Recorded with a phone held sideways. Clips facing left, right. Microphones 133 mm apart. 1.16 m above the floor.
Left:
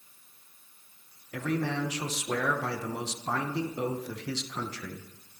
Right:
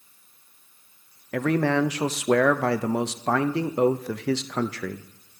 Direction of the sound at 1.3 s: 75° right (ahead or behind).